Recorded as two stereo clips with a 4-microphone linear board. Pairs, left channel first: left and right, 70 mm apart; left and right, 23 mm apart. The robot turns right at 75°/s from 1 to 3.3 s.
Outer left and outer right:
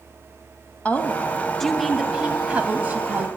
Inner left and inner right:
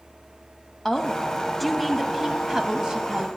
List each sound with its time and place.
0.8 s a woman speaking: 20° left (ahead or behind), 1.0 m; by 3.3 s 25° right (ahead or behind), 1.0 m